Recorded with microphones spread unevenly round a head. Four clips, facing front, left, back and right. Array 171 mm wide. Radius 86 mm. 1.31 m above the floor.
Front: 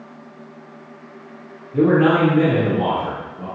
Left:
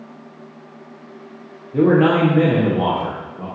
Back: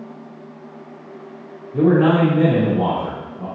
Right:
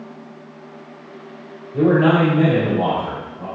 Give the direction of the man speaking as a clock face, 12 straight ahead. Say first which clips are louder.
Left 1 dB, even; 10 o'clock.